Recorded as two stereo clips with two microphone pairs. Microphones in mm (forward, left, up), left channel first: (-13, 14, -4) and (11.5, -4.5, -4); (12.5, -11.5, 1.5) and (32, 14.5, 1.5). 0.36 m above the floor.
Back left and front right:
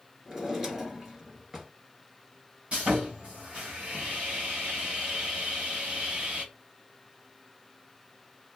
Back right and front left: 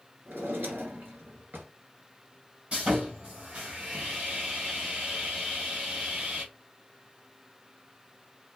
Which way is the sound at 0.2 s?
40° left.